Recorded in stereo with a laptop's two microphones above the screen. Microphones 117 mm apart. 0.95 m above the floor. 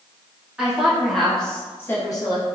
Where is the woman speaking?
5° right (ahead or behind), 1.7 m; by 2.5 s 45° left (ahead or behind), 0.8 m.